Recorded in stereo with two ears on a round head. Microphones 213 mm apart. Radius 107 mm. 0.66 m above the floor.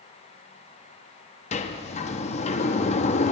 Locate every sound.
1.5 s a sliding door: 25° left (ahead or behind), 0.6 m